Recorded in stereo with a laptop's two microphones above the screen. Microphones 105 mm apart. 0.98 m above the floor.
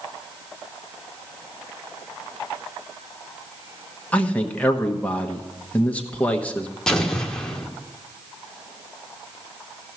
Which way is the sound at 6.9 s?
5° left (ahead or behind).